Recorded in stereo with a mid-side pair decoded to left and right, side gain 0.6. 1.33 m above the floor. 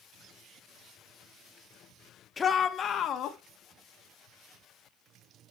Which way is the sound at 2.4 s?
25° left.